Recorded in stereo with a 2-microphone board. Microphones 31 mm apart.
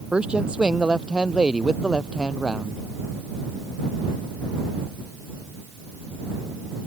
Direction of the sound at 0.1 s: 35° right (ahead or behind).